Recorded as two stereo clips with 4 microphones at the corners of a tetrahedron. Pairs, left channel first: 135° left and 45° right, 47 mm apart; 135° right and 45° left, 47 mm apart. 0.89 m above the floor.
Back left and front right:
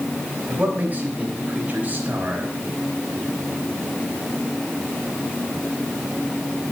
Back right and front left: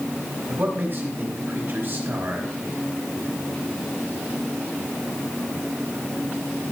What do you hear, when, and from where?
0.5 s a man speaking: 5° left, 4 m